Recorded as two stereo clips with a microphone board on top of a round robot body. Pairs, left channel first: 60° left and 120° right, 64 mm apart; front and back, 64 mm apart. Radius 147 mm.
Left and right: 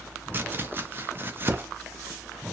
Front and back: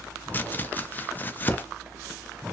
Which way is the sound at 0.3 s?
65° right.